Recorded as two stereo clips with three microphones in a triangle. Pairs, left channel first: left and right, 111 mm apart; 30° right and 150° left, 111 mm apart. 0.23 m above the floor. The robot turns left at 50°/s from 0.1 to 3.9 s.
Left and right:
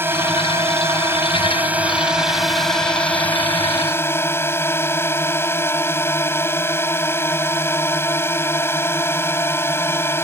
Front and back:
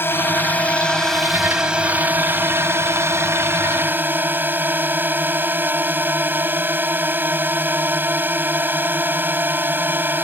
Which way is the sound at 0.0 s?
60° right.